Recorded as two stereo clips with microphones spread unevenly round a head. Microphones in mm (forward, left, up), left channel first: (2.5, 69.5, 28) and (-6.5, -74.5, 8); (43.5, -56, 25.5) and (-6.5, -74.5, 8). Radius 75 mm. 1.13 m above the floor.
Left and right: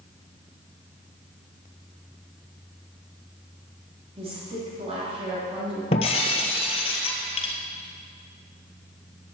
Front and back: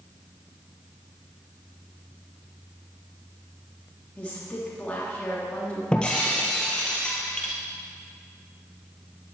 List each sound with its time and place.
4.2 s a woman speaking: 45° right, 3 m
5.9 s breaking glass: 70° left, 1.5 m